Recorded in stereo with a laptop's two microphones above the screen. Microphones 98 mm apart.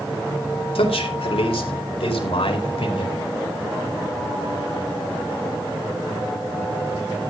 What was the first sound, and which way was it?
A man speaking, 80° left.